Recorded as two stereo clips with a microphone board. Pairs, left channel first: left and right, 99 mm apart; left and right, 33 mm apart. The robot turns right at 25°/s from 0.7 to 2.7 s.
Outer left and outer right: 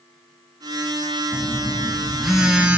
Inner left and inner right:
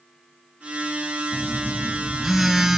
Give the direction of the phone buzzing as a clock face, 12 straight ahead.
7 o'clock.